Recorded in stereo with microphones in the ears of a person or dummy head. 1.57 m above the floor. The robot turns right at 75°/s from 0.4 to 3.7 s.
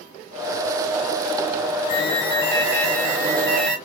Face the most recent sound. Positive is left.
turn(degrees=-100)